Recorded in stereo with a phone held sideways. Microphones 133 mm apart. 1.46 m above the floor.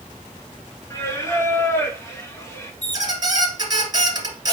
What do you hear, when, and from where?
0.9 s singing: 20° left (ahead or behind), 1.0 m
2.8 s a squeak: 30° right (ahead or behind), 1.6 m